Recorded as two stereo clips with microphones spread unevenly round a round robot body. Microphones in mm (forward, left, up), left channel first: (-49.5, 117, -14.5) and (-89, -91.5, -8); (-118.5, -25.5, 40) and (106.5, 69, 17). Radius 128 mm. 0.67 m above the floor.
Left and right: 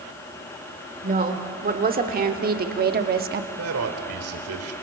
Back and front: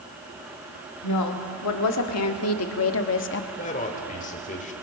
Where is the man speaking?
95° right, 3 m.